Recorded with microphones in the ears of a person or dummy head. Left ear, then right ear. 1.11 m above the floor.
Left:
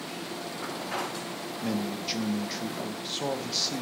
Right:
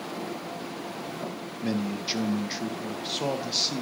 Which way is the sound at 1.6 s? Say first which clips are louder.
Right 2 dB; 5° right (ahead or behind).